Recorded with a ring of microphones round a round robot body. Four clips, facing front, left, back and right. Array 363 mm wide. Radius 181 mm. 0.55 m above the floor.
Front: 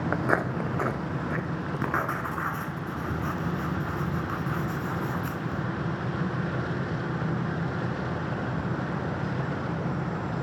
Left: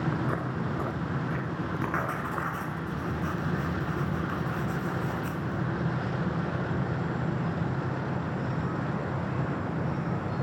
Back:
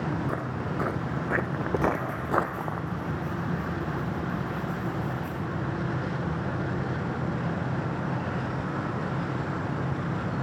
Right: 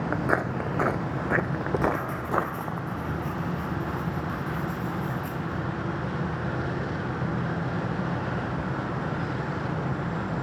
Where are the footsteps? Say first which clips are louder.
Right 5 dB, front 4 dB; 35° right, 0.7 m; by 2.8 s 145° right, 1.3 m.